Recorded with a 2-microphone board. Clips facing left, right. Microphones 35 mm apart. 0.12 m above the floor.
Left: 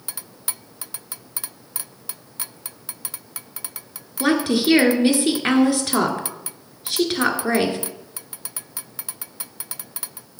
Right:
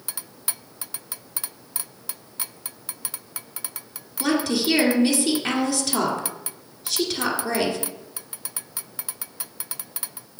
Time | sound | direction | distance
4.2 | a woman speaking | 30° left (ahead or behind) | 1.6 m